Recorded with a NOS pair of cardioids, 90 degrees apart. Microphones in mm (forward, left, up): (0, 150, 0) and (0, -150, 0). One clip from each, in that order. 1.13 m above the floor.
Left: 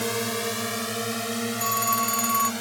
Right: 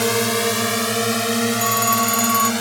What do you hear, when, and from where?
0.0 s a drone: 60° right; by 2.6 s 65° right
1.6 s a phone ringing: 30° right